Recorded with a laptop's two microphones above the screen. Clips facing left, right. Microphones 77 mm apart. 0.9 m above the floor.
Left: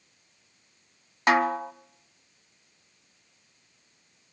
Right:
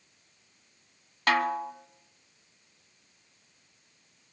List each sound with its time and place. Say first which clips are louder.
1.3 s a snare drum: left 3 dB; 20° left (ahead or behind), 1.2 m